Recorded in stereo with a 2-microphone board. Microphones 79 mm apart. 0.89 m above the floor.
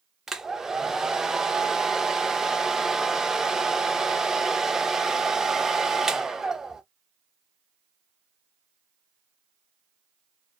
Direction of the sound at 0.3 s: 5° right (ahead or behind).